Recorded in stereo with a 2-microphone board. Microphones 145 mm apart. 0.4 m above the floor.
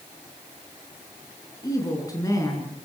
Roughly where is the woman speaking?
Left.